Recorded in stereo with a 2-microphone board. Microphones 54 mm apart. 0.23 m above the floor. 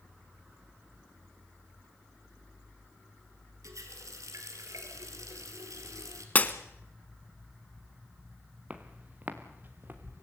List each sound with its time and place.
3.6 s a running tap: 75° right (ahead or behind), 3 m
6.3 s breaking glass: 30° left (ahead or behind), 1.1 m
8.7 s footsteps: 25° right (ahead or behind), 2.5 m; by 10.2 s 40° right (ahead or behind), 3 m